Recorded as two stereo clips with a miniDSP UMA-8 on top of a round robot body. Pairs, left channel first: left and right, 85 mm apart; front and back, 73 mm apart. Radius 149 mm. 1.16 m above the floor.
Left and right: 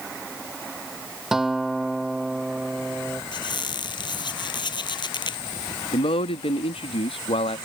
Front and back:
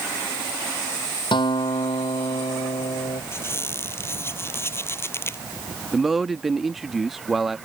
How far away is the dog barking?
I don't hear a dog barking.